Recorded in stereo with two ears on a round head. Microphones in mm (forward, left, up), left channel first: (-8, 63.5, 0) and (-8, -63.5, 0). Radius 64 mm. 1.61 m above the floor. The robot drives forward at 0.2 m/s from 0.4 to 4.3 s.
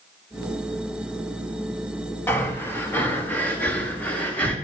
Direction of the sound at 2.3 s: 15° left (ahead or behind).